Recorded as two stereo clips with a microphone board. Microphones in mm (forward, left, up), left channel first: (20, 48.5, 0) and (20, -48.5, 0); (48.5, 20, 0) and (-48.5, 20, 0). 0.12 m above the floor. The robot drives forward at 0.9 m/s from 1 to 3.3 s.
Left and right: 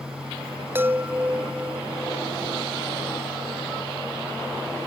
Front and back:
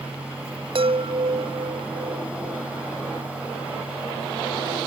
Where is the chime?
160° right; by 2.7 s 170° right.